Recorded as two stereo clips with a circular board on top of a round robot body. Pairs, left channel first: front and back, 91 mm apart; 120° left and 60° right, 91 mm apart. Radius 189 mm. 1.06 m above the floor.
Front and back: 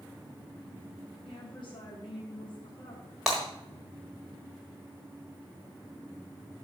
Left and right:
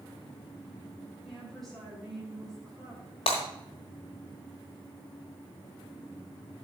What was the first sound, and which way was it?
A woman speaking, 35° left.